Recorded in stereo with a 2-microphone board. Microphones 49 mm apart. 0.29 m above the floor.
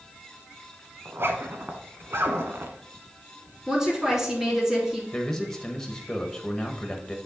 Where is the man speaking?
10° left (ahead or behind), 1.0 m.